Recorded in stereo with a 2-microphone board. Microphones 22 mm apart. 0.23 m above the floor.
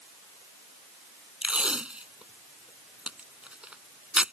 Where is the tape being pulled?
60° right (ahead or behind).